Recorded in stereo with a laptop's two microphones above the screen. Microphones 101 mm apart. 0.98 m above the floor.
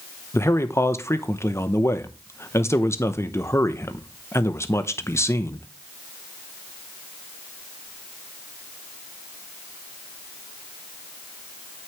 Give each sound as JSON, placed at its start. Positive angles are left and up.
{"t": 0.3, "sound": "a man speaking", "side_deg": 25, "distance_m": 0.7}